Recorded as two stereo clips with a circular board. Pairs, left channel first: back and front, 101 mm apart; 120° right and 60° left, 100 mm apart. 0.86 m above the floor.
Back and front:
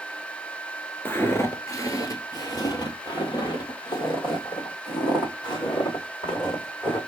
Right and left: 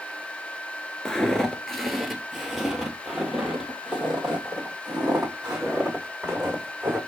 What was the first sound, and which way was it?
Footsteps, 170° left.